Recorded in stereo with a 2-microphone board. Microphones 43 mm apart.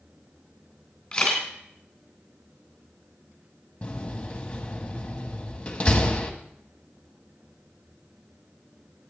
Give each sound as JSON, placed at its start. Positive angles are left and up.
{"t": 1.1, "sound": "a camera shutter", "side_deg": 15, "distance_m": 3.0}
{"t": 3.8, "sound": "a door slam", "side_deg": 25, "distance_m": 1.3}